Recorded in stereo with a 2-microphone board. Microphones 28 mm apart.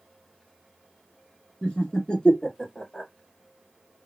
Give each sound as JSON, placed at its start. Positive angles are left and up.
{"t": 1.6, "sound": "laughter", "side_deg": 30, "distance_m": 1.4}